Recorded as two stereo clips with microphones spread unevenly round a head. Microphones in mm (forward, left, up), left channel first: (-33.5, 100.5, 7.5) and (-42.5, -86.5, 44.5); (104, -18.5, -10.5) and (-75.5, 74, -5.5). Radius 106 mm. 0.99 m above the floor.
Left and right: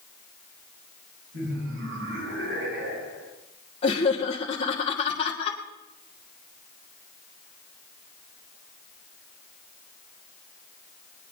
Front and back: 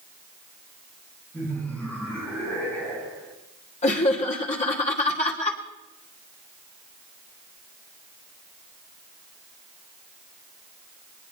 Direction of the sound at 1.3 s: 110° right.